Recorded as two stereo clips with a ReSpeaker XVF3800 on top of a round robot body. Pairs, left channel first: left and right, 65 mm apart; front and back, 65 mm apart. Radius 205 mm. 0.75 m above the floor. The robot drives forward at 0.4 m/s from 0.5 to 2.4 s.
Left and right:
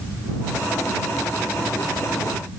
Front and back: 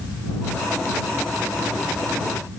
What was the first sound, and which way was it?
Only background noise.